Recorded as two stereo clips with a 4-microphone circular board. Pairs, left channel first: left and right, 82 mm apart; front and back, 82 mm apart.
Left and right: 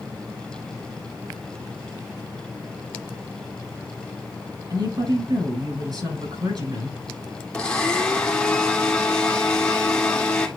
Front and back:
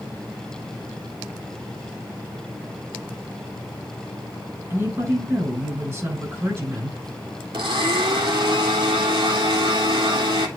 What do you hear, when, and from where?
4.7 s a woman speaking: 120° right, 7.5 m
7.5 s a blender: 165° left, 2 m